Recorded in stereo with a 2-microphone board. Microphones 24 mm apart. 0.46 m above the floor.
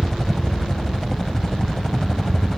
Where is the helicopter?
15° left (ahead or behind).